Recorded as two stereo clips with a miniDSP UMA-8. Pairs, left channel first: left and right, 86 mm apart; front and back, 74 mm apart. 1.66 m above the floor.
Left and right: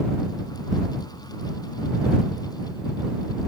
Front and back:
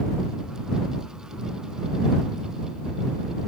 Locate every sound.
Only background noise.